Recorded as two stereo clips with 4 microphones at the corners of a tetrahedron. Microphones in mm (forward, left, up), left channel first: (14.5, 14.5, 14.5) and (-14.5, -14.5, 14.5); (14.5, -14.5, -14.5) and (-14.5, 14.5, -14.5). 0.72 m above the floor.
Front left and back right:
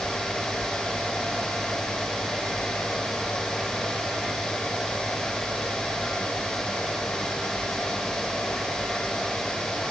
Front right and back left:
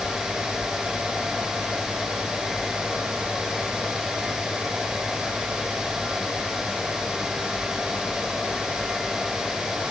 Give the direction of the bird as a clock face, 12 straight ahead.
I don't hear a bird.